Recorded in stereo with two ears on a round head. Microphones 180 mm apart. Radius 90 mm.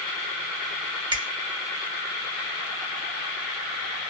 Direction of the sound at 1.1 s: 25° right (ahead or behind).